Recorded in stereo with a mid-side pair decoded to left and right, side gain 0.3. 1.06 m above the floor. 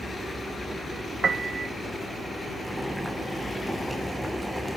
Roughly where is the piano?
Ahead right.